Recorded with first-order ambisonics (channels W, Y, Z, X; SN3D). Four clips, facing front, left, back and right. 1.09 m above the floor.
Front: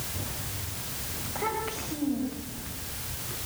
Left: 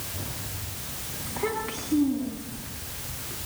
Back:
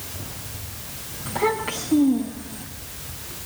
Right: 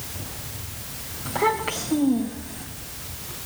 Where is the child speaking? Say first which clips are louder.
Right 7 dB, back 8 dB; 110° right, 5 m; by 2.7 s 115° right, 5.5 m.